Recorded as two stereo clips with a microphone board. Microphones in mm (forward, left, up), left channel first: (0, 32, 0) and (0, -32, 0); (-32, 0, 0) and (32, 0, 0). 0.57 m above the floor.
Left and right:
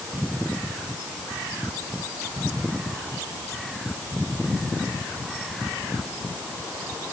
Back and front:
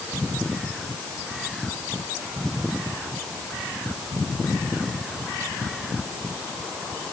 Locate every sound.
Only background noise.